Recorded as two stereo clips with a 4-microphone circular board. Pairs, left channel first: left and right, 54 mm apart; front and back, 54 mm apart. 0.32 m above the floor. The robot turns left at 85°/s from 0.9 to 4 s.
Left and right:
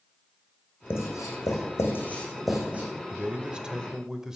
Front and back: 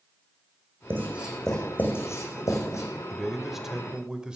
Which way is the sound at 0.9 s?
130° left.